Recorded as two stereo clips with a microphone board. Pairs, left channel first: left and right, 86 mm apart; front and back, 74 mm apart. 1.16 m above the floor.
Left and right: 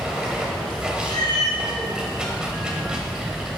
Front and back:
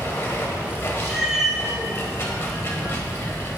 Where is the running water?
15° right, 1.1 m.